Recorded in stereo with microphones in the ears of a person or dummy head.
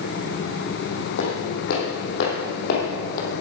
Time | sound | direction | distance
1.2 | footsteps | 60° left (ahead or behind) | 3 m